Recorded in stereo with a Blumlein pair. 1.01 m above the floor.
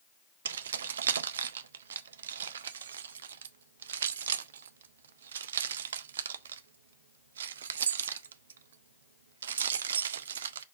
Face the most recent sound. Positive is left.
turn(degrees=-65)